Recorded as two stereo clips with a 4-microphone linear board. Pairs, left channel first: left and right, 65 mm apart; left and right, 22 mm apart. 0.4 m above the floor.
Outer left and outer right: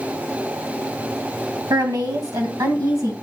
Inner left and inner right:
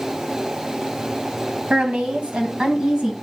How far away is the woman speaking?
About 2 m.